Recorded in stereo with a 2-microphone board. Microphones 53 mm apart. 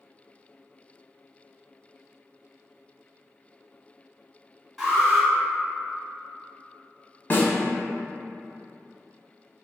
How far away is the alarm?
About 1.6 m.